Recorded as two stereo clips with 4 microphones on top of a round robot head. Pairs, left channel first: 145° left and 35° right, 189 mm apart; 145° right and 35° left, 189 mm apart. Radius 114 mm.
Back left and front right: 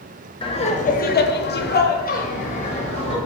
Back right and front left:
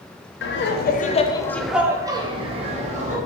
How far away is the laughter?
About 0.7 m.